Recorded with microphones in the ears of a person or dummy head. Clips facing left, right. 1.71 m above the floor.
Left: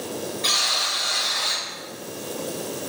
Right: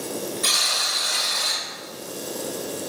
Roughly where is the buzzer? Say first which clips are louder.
Left 1 dB; right.